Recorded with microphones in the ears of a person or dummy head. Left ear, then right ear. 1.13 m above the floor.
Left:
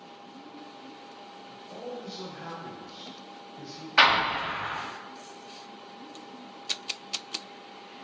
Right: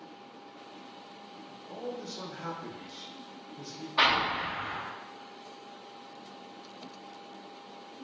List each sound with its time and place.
1.5 s a man speaking: 60° right (ahead or behind), 0.9 m
4.0 s an explosion: 55° left (ahead or behind), 1.2 m